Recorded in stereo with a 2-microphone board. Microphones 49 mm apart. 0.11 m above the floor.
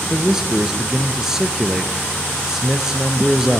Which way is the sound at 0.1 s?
10° right (ahead or behind).